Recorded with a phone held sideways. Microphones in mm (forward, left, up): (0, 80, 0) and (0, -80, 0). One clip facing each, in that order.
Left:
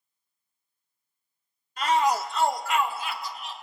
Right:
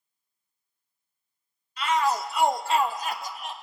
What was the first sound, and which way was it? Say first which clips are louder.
A shout: left 2 dB; 50° left (ahead or behind).